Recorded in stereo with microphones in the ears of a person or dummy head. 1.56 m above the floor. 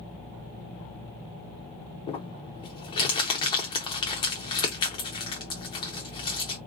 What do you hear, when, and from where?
2.1 s crumpling: 20° left (ahead or behind), 0.6 m